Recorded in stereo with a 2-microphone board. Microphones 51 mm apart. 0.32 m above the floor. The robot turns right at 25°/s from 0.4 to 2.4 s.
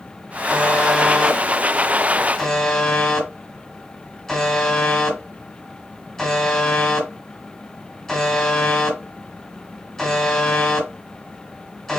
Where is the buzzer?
35° right (ahead or behind), 1.6 m; by 12.0 s 10° left (ahead or behind), 1.6 m.